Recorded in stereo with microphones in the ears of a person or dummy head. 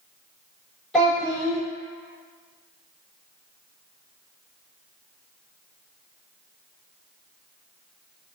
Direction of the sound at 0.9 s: Centre (ahead or behind).